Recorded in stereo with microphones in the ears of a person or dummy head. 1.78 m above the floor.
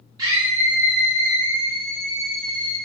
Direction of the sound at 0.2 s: 25° right (ahead or behind).